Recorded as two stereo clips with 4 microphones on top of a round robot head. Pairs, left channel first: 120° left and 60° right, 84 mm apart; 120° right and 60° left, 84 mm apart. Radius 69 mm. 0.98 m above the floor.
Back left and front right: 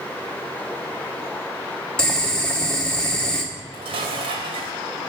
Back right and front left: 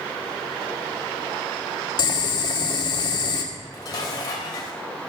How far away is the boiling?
About 2.5 m.